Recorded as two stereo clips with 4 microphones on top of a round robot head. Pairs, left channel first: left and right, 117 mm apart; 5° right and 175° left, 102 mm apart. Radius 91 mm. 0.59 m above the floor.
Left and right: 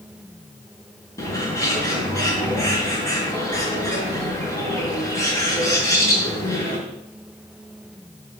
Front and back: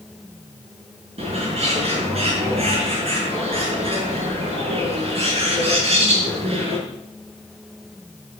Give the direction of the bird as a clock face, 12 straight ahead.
7 o'clock.